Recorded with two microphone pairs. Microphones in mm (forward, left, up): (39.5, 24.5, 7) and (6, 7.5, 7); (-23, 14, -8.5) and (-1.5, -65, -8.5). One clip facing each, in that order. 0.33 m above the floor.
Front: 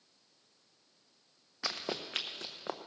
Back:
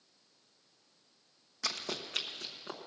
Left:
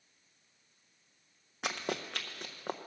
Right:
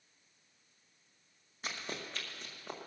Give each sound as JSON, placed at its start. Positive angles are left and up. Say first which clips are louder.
{"t": 1.6, "sound": "running footsteps", "louder": "front 1 dB, left 6 dB", "azimuth_deg": 95, "distance_m": 0.9}